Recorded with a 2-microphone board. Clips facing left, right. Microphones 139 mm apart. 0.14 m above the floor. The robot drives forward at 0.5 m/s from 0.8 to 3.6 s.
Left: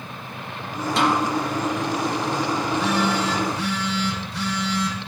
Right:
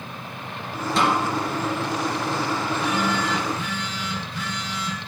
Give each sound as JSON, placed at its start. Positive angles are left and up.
{"t": 1.0, "sound": "a snare drum", "side_deg": 0, "distance_m": 3.0}
{"t": 2.6, "sound": "a phone buzzing", "side_deg": 80, "distance_m": 2.0}